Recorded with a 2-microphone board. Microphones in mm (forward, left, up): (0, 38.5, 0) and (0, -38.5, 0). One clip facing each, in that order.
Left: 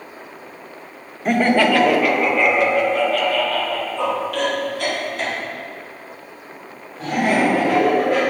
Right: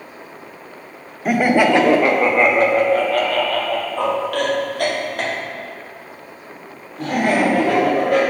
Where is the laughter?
5° right (ahead or behind), 0.7 m; by 8.2 s 60° right (ahead or behind), 4 m.